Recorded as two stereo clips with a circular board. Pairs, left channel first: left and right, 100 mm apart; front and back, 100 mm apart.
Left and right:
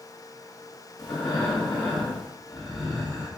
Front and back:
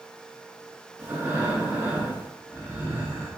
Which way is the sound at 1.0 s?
110° left.